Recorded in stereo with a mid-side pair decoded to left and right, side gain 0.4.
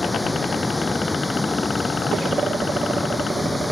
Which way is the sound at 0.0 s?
5° left.